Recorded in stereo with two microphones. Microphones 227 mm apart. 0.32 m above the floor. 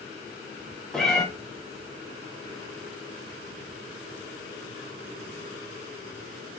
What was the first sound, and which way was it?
A cat meowing, centre (ahead or behind).